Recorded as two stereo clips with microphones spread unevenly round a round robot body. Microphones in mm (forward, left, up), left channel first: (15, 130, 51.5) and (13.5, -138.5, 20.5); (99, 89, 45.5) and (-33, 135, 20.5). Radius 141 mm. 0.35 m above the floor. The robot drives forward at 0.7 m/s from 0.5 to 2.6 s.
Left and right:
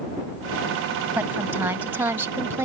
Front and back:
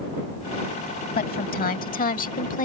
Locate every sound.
1.1 s a woman speaking: 10° right; by 2.6 s 15° right